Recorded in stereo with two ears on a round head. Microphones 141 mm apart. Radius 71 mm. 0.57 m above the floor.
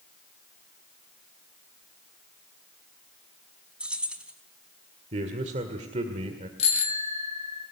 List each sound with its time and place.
3.8 s keys jangling: 5° right (ahead or behind), 3.5 m
5.1 s a man speaking: 45° right (ahead or behind), 1.9 m
6.6 s a bicycle bell: 40° left (ahead or behind), 2 m